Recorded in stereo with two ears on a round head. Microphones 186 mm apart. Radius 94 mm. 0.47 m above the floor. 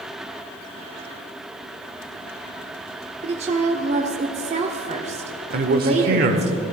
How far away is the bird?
I don't hear a bird.